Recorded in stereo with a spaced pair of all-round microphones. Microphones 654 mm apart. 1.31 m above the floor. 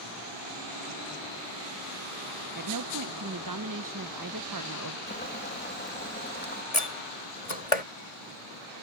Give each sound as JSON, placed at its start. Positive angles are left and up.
{"t": 2.5, "sound": "a woman speaking", "side_deg": -30}
{"t": 5.1, "sound": "boiling", "side_deg": 15}
{"t": 6.7, "sound": "a door slam", "side_deg": 60}